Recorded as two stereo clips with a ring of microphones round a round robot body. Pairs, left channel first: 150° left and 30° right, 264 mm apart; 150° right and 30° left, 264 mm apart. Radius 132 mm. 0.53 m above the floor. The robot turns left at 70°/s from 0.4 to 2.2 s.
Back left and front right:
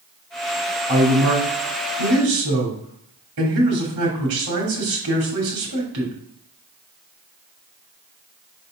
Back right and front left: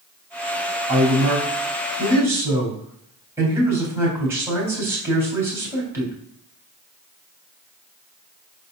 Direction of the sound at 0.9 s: 40° left.